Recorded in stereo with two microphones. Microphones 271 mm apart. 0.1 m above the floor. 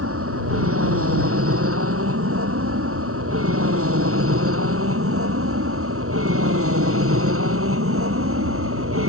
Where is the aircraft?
60° right (ahead or behind).